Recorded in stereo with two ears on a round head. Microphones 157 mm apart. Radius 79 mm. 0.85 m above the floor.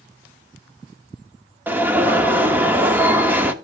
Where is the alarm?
10° right (ahead or behind), 0.9 m.